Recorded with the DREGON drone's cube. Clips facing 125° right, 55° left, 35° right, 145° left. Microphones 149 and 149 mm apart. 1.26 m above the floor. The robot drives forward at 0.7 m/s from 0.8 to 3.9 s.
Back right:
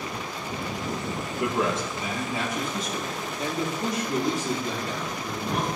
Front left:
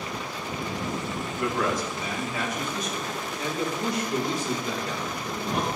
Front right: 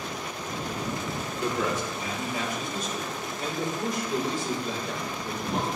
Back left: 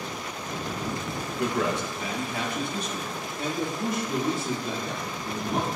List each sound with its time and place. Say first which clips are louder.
1.4 s a man speaking: back right 1 dB, back left 2 dB; 170° left, 1.1 m; by 5.7 s 175° left, 3 m